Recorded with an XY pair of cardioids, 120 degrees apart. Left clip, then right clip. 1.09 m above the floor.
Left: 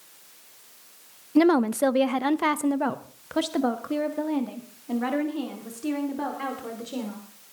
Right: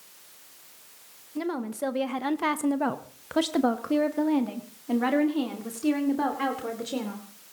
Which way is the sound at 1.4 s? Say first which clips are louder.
Left 11 dB; 65° left.